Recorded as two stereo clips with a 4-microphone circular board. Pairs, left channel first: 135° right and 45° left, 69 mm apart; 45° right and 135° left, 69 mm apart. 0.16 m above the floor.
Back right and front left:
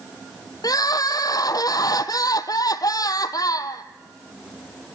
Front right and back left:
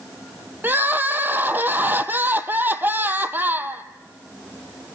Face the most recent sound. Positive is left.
turn(degrees=-160)